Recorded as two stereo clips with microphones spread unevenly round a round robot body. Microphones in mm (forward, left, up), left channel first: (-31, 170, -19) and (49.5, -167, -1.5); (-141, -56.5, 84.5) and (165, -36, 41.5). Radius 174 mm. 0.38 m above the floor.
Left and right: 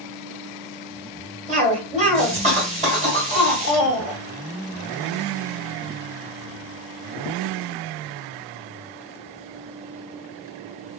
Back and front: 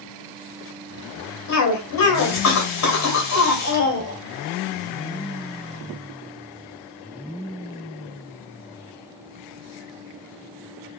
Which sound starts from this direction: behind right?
A cough, at 1.5 s.